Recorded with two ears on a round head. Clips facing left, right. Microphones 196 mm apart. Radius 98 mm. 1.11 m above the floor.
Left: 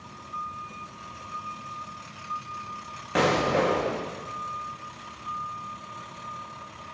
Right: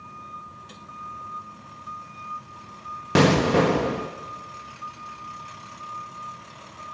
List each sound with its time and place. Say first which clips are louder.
3.1 s an explosion: right 5 dB; 55° right (ahead or behind), 0.8 m